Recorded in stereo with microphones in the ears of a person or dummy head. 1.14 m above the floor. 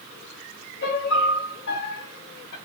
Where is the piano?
60° left (ahead or behind), 1.0 m.